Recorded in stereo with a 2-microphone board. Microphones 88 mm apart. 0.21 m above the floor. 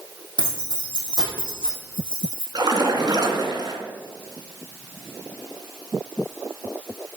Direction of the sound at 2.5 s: 50° right (ahead or behind).